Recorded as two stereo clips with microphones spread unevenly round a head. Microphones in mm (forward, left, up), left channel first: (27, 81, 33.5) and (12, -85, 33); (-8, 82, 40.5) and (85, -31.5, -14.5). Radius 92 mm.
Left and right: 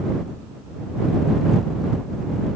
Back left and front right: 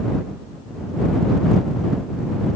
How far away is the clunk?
No clunk in this recording.